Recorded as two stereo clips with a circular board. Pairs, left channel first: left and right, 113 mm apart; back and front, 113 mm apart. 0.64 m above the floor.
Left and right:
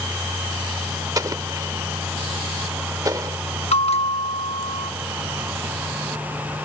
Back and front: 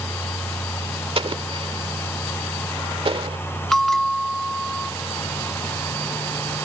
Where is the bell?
95° left.